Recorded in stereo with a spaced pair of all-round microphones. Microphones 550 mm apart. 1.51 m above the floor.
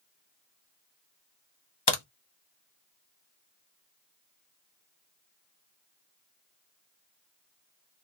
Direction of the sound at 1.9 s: 45° left (ahead or behind).